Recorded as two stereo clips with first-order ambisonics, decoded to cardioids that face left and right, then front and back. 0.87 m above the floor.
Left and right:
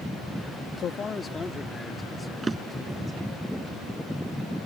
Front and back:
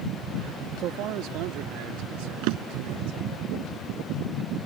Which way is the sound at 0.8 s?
140° left.